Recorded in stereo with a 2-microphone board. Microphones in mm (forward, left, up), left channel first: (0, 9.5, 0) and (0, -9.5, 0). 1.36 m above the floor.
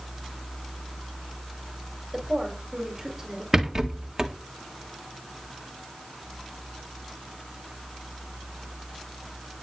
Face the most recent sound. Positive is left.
turn(degrees=-20)  # may be behind; listen again after turning